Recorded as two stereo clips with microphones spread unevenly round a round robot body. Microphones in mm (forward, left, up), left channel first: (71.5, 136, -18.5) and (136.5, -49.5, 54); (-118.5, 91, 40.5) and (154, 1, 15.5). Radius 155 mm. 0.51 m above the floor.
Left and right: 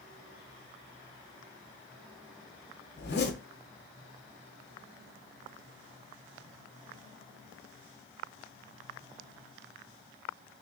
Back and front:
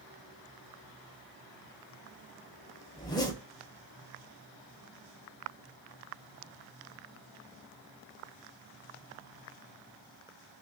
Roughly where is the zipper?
Left.